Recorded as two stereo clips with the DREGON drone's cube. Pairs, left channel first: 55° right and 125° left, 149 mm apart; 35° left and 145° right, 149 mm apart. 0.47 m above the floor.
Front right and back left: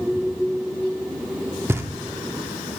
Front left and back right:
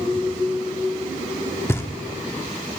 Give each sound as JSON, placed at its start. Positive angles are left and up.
{"t": 1.7, "sound": "knocking", "azimuth_deg": 80, "distance_m": 0.8}